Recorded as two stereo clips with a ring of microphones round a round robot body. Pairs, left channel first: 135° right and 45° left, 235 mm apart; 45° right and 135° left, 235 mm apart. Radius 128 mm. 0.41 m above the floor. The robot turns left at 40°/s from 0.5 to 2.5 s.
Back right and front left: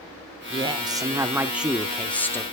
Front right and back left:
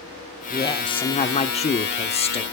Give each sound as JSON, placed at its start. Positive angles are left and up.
{"t": 0.5, "sound": "a woman speaking", "azimuth_deg": 10, "distance_m": 0.9}